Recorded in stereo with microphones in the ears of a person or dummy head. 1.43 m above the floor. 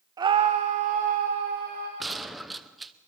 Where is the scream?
15° right (ahead or behind), 0.7 m; by 1.9 s 45° right (ahead or behind), 2 m.